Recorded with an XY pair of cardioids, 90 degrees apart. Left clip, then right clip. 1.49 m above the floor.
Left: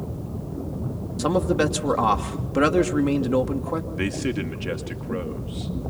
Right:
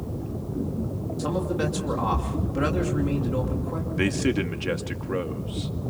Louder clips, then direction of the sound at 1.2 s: Left 6 dB; 60° left.